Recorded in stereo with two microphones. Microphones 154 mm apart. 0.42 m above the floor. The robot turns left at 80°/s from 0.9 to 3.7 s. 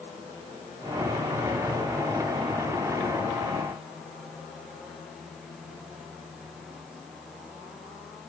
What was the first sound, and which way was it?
Only background noise.